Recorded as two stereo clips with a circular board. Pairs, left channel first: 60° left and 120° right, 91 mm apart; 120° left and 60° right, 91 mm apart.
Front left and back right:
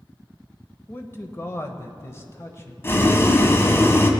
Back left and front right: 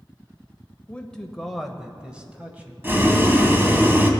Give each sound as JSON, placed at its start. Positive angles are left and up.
{"t": 0.9, "sound": "a man speaking", "azimuth_deg": 65, "distance_m": 0.9}
{"t": 2.8, "sound": "boiling", "azimuth_deg": 0, "distance_m": 1.3}